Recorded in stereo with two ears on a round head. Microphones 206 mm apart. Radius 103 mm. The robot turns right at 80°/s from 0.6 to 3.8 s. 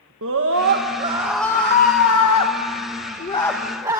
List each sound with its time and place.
0.2 s a scream: 60° right, 1.4 m; by 4.0 s 165° right, 1.4 m